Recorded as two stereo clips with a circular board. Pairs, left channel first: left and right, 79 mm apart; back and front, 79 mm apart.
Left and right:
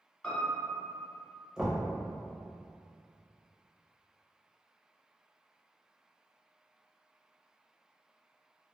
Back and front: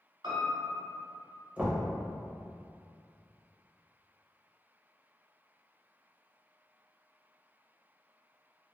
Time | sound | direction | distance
0.2 | a piano | 15° left | 0.9 m
1.6 | knocking | 20° right | 0.7 m